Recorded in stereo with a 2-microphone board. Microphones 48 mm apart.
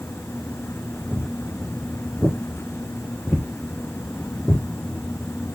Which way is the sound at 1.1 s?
Centre (ahead or behind).